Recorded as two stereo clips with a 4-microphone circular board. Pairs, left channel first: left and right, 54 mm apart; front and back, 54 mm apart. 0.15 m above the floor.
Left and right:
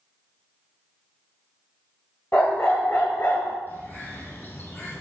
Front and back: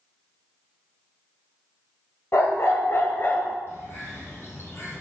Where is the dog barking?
40° left, 1.5 m; by 3.6 s 55° left, 0.8 m.